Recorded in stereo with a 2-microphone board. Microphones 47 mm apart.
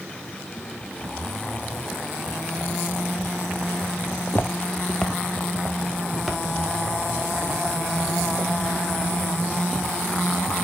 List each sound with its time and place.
4.1 s footsteps: 50° left (ahead or behind), 0.6 m; by 8.5 s 10° right (ahead or behind), 3.5 m